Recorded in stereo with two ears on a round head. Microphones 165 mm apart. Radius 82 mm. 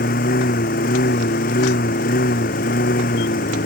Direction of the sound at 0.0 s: 55° left (ahead or behind).